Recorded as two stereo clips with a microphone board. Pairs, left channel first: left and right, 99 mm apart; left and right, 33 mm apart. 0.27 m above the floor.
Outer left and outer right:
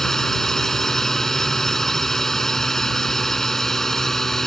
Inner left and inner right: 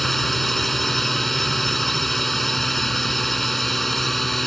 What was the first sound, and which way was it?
A drone, 5° left (ahead or behind).